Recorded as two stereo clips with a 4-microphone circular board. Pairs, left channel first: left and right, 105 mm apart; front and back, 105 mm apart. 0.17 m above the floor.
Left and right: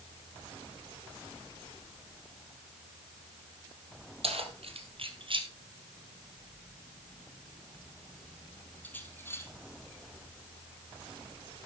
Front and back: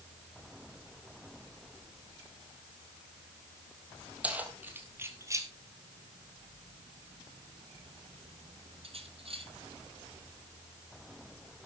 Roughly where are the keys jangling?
Right.